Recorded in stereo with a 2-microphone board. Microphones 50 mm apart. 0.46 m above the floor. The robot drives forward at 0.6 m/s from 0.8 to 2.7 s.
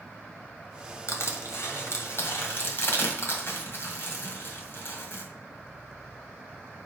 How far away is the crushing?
About 1.9 m.